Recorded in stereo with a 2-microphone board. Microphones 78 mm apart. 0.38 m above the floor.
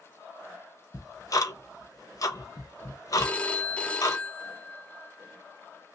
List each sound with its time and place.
0.9 s ticking: 45° left (ahead or behind), 0.8 m
3.2 s a phone ringing: 15° left (ahead or behind), 0.7 m